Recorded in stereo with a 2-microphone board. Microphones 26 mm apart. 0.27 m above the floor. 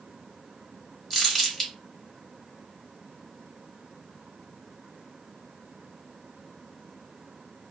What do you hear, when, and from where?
1.1 s crumpling: 10° left (ahead or behind), 1.1 m